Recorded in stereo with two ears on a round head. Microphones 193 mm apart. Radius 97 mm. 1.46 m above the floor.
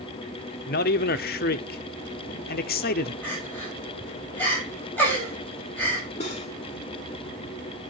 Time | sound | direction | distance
0.7 | a man speaking | 50° left (ahead or behind) | 0.7 m
3.2 | crying | 10° left (ahead or behind) | 6 m
6.2 | cutlery clinking | 35° left (ahead or behind) | 2.5 m